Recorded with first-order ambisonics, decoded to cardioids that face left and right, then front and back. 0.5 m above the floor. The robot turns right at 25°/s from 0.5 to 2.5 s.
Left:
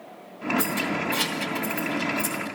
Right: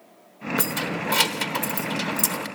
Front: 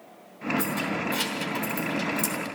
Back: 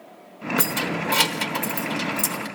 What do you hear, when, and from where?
0.6 s keys jangling: 150° right, 1.1 m; by 2.5 s 100° right, 1.1 m